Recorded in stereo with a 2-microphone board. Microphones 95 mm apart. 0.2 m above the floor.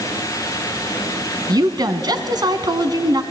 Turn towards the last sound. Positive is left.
turn(degrees=-45)  # may be behind; listen again after turning